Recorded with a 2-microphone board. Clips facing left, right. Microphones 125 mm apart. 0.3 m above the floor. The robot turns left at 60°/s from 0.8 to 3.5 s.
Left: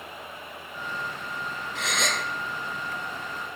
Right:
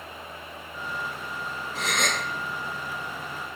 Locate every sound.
1.8 s a gasp: 40° right (ahead or behind), 0.7 m; by 2.2 s 70° right (ahead or behind), 0.7 m